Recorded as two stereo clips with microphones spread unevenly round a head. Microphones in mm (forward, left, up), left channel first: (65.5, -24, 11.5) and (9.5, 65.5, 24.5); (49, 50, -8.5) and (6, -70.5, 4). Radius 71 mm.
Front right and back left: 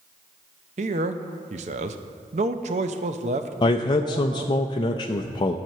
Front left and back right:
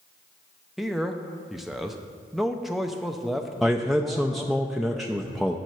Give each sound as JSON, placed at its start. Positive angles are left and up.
{"t": 0.8, "sound": "a man speaking", "azimuth_deg": 160, "distance_m": 0.6}
{"t": 3.6, "sound": "a man speaking", "azimuth_deg": -20, "distance_m": 0.5}